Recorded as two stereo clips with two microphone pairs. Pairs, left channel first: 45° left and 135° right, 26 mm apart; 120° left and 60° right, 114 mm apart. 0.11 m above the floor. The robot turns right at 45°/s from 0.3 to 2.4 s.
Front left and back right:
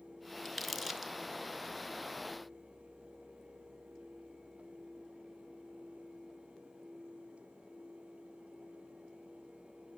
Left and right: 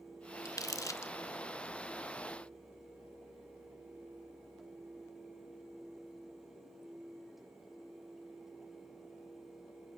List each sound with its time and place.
0.5 s crumpling: 125° left, 0.8 m; by 1.1 s 155° left, 0.8 m